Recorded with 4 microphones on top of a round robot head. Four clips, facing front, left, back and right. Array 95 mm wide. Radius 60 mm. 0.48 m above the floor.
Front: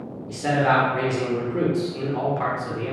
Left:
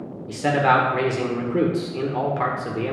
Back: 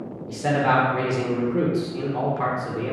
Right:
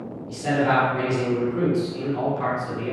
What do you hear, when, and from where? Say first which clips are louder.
0.3 s a man speaking: left 3 dB, front 1 dB; 95° left, 1.5 m